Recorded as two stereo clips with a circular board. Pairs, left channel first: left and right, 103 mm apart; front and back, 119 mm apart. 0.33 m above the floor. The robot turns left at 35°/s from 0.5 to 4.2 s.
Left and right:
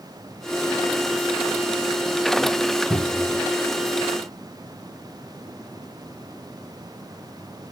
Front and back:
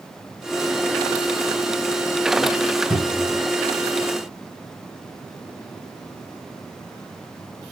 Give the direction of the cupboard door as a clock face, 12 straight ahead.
11 o'clock.